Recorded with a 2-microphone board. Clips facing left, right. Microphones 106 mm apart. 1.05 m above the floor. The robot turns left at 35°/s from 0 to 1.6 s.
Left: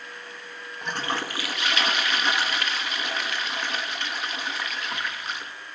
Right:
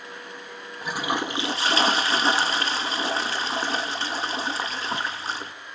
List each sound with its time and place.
0.8 s a toilet flushing: 5° right (ahead or behind), 1.3 m; by 5.5 s 30° right (ahead or behind), 1.3 m